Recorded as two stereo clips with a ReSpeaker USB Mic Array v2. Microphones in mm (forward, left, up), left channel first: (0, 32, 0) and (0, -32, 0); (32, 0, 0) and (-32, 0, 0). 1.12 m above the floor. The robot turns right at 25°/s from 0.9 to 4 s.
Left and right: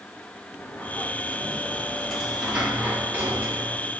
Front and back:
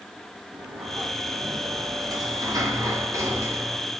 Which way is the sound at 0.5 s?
155° left.